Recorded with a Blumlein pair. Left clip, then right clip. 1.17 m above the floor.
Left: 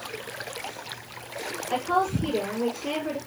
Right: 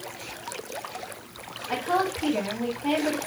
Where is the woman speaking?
70° right, 1.6 m.